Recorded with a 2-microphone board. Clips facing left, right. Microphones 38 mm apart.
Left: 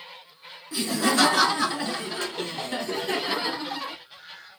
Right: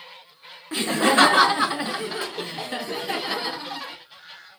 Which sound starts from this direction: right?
Laughter, at 0.7 s.